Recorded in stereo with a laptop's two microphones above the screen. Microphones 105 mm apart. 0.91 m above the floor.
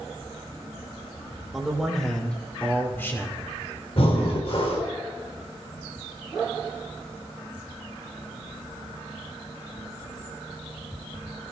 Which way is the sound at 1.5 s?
Centre (ahead or behind).